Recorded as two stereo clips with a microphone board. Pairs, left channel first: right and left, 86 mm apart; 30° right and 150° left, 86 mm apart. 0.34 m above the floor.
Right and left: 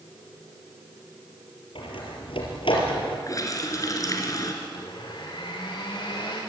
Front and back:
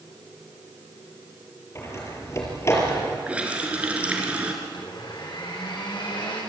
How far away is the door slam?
About 5.5 m.